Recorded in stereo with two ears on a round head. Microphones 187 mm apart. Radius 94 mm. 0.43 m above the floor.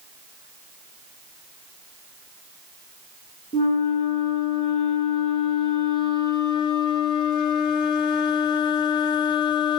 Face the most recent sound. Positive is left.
turn(degrees=20)  # may be behind; listen again after turning